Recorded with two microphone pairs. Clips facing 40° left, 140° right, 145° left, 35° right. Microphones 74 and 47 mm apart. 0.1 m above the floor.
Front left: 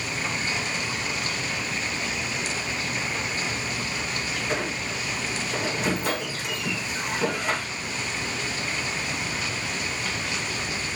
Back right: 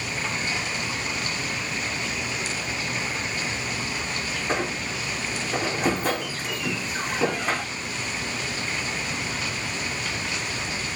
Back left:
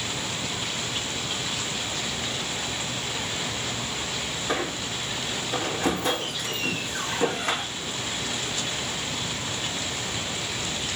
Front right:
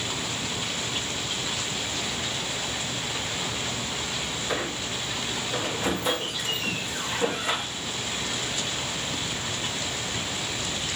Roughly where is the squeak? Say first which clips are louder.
Back right 3 dB, back left 2 dB; behind.